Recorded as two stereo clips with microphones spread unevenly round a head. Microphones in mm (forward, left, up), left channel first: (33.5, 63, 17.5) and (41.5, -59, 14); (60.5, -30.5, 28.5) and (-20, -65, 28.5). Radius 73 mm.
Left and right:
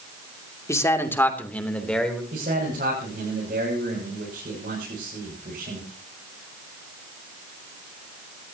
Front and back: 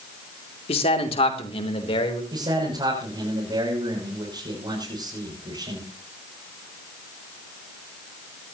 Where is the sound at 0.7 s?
25° left, 2.5 m; by 2.2 s 10° left, 3.5 m.